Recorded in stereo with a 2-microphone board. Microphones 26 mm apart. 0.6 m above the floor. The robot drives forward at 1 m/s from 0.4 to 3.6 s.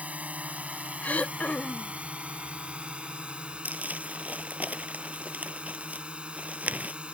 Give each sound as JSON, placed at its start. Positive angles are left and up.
{"t": 0.0, "sound": "a drone", "side_deg": -65}
{"t": 1.0, "sound": "throat clearing", "side_deg": 65}
{"t": 3.6, "sound": "crumpling", "side_deg": -75}